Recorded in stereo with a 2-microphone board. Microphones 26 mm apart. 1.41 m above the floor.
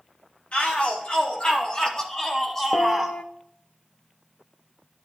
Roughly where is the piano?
Left.